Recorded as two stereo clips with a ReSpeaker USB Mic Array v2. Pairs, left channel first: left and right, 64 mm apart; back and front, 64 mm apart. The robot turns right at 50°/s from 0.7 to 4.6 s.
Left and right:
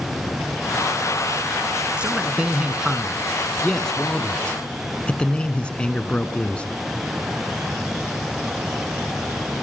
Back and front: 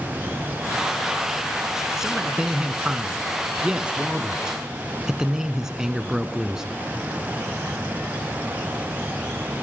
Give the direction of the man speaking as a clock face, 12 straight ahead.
2 o'clock.